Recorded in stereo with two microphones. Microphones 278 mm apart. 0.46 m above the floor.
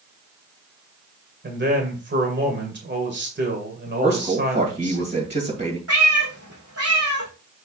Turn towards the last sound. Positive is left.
turn(degrees=-55)  # may be behind; listen again after turning